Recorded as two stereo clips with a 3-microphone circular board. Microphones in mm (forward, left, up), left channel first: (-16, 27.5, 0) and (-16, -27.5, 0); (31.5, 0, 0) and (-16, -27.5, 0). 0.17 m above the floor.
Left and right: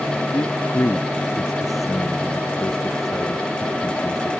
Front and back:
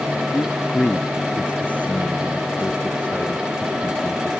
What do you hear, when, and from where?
0.3 s a man speaking: 95° left